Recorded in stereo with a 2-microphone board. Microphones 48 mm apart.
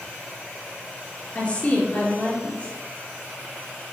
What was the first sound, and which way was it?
A woman speaking, 30° left (ahead or behind).